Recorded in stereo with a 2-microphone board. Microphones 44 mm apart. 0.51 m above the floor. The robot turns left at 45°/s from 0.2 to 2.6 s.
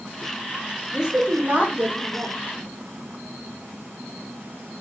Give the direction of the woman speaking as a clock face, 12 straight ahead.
1 o'clock.